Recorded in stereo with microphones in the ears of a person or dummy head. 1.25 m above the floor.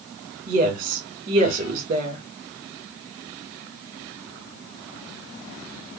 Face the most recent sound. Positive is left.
turn(degrees=-40)  # may be behind; listen again after turning